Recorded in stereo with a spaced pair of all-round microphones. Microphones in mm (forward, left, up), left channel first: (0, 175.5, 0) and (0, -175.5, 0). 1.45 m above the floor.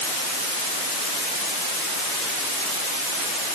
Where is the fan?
I don't hear a fan.